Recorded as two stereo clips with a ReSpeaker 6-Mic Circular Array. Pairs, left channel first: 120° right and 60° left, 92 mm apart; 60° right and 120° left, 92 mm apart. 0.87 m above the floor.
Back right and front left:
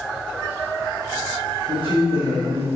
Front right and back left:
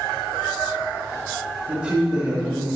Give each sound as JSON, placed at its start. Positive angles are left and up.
{"t": 1.7, "sound": "a man speaking", "azimuth_deg": 45, "distance_m": 1.8}